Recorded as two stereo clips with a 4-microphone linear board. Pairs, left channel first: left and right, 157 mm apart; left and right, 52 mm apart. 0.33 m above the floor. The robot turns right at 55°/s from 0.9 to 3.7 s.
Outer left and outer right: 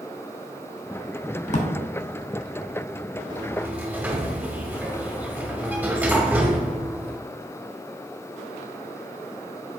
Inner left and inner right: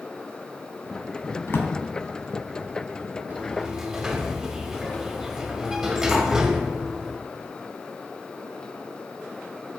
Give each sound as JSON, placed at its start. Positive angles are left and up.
{"t": 1.5, "sound": "a drawer", "side_deg": 55, "distance_m": 0.7}
{"t": 3.3, "sound": "a sliding door", "side_deg": -30, "distance_m": 0.6}